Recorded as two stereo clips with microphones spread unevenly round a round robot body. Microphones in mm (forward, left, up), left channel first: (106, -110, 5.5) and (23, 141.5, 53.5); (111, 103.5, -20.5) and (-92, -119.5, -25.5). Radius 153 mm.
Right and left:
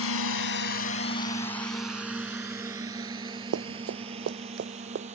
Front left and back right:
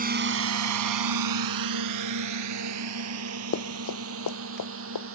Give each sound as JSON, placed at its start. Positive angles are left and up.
{"t": 0.0, "sound": "a drone", "azimuth_deg": -75}
{"t": 3.5, "sound": "running footsteps", "azimuth_deg": 95}